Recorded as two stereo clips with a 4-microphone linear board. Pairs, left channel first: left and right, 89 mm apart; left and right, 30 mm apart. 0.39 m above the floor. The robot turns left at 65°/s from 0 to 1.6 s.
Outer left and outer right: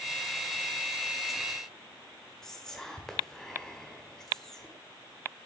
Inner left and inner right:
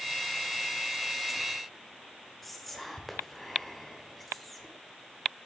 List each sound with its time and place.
2.4 s whispering: 5° left (ahead or behind), 1.2 m